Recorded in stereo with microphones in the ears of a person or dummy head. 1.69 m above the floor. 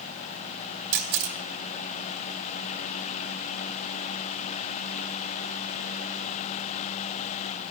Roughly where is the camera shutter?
Right.